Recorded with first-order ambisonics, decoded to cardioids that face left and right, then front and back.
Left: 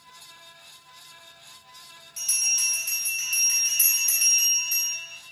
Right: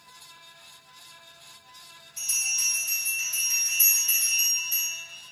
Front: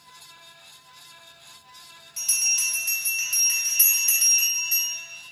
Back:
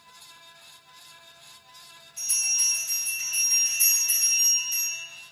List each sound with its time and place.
2.2 s a bell: 30° left, 1.2 m